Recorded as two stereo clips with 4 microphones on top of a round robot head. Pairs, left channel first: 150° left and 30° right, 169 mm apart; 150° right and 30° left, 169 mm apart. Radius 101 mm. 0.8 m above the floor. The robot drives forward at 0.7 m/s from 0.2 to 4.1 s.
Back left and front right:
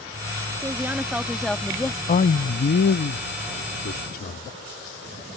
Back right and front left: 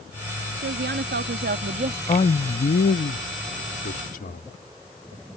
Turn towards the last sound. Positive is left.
turn(degrees=175)